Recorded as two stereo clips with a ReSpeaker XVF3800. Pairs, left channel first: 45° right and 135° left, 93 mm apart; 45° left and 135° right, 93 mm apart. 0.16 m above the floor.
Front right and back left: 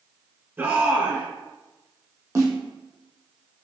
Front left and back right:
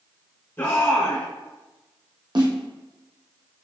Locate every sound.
0.6 s a shout: 85° left, 1.2 m
2.4 s a snare drum: 170° right, 2 m